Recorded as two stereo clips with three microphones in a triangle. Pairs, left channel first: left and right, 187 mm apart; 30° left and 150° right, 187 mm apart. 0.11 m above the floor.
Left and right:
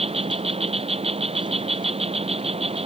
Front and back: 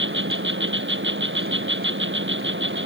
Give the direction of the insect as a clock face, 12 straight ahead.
5 o'clock.